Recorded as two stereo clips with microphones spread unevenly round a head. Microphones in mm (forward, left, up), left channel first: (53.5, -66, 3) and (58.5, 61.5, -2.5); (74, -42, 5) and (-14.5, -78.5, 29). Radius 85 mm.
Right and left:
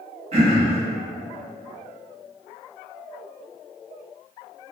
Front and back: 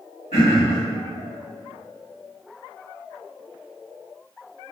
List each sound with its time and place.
0.3 s throat clearing: 70° left, 0.8 m